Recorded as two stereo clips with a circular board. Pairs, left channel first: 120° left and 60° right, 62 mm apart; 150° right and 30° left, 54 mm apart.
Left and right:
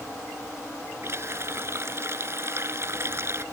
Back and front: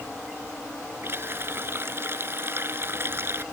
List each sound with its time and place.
1.0 s a running tap: 15° right